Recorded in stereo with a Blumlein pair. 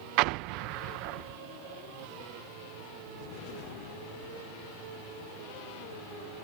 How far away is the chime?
No chime in this recording.